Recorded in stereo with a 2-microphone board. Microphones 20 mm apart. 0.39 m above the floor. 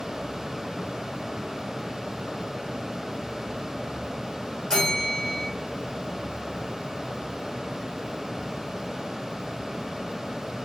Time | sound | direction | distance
4.7 | a bell | 25° left (ahead or behind) | 1.4 m